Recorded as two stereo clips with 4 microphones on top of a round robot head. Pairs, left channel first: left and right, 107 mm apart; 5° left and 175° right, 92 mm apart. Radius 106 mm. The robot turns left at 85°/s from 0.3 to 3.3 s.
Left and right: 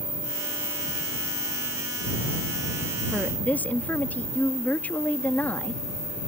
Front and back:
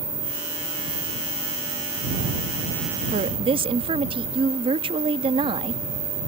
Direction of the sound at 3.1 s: 175° right.